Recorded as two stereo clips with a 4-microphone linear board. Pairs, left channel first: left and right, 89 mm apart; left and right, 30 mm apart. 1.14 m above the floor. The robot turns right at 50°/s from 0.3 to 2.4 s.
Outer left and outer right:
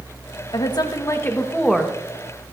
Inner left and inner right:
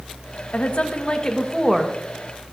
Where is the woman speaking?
115° left, 1.3 m; by 1.9 s 175° right, 1.3 m.